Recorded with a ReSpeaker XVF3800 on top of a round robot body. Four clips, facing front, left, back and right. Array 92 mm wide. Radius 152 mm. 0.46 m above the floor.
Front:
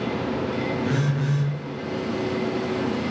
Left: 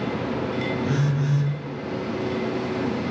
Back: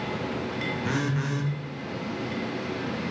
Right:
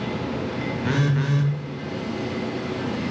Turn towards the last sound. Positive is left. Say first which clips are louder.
# right 1 dB, front 3 dB
turn(degrees=-105)